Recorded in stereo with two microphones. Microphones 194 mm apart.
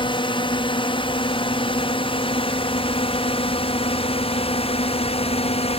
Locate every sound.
0.0 s a drone: 25° left (ahead or behind); by 5.8 s 30° left (ahead or behind)